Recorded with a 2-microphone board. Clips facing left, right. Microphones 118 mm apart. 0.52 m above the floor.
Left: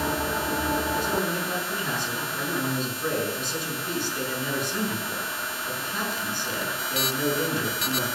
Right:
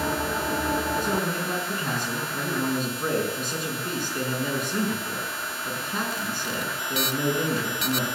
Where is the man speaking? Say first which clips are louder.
Even; 50° right (ahead or behind), 6.5 m.